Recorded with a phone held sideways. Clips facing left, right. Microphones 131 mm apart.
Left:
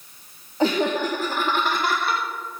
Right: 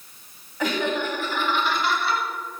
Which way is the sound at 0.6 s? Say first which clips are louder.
Left 4 dB; 30° left (ahead or behind).